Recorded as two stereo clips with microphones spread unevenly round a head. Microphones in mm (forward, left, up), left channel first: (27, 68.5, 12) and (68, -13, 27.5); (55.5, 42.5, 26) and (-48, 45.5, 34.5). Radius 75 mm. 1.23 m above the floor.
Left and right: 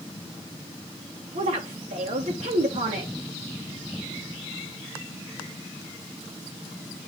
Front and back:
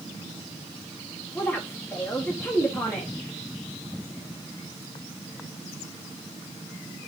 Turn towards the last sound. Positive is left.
turn(degrees=-80)